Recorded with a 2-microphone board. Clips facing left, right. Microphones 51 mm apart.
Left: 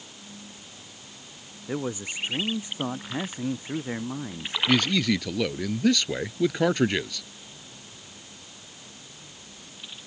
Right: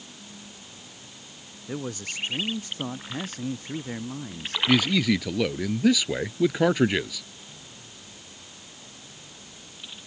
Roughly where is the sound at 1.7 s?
Centre.